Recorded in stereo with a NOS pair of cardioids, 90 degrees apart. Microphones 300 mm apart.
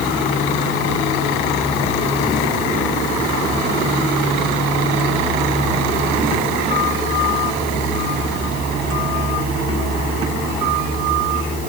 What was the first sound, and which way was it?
Only background noise.